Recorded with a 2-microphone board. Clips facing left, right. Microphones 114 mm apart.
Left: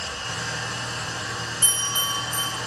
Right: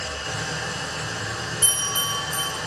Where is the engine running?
75° right (ahead or behind), 1.4 m.